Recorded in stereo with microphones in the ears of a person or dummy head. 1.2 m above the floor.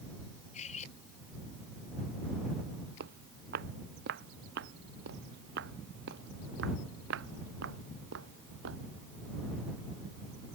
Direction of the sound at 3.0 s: 60° right (ahead or behind).